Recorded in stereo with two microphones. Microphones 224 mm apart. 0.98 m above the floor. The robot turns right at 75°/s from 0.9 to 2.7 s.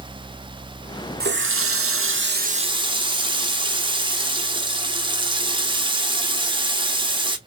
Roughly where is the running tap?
Behind right.